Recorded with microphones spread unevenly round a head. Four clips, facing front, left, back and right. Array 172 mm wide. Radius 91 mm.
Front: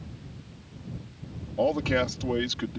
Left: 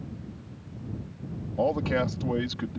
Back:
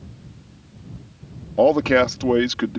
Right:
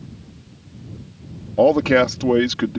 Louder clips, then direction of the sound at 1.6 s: Right 12 dB, back 10 dB; 125° right.